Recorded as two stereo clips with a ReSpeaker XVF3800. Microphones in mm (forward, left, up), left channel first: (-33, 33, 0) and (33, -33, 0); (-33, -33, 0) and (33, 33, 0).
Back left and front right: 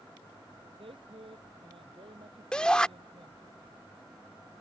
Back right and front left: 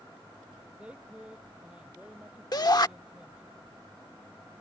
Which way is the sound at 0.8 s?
35° right.